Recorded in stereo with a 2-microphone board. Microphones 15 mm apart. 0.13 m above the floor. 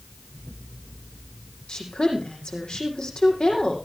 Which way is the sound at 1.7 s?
75° left (ahead or behind).